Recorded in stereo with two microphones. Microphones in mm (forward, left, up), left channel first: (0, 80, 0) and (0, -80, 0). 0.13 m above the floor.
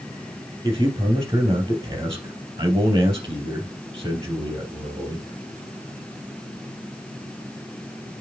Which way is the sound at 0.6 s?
20° right (ahead or behind).